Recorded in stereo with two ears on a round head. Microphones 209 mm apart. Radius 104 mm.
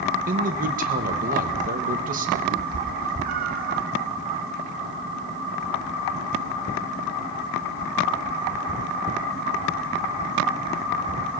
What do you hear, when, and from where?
0.3 s a man speaking: 35° right (ahead or behind), 1.0 m
2.5 s a cat meowing: 40° right (ahead or behind), 0.9 m